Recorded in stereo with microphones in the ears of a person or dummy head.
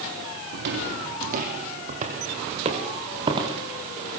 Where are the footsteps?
55° right (ahead or behind), 2.5 m; by 3.6 s 25° right (ahead or behind), 5.5 m.